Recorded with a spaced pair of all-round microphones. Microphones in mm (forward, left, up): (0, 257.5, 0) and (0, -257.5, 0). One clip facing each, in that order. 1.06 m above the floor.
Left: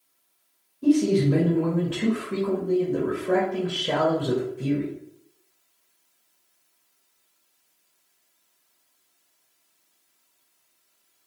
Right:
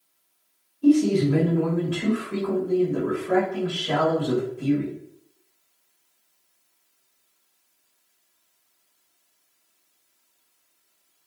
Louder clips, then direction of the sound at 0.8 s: Right 2 dB; 70° left (ahead or behind).